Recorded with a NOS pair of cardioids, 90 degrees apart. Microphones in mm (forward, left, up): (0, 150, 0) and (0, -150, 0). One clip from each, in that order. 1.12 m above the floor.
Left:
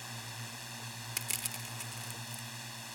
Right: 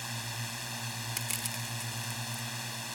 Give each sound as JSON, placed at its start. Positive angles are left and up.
{"t": 0.0, "sound": "a drone", "azimuth_deg": -45}
{"t": 1.2, "sound": "crushing", "azimuth_deg": 0}